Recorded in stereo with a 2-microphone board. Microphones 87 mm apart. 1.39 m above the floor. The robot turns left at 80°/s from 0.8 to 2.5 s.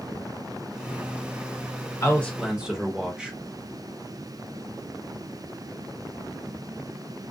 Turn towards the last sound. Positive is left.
turn(degrees=-10)